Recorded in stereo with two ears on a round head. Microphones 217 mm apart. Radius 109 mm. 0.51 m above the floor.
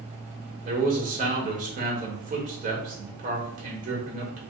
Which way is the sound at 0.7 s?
35° right (ahead or behind).